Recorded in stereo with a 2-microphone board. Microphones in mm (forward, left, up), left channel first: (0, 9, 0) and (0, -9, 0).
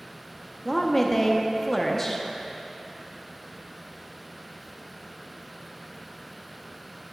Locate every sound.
0.7 s a woman speaking: 15° left (ahead or behind), 0.6 m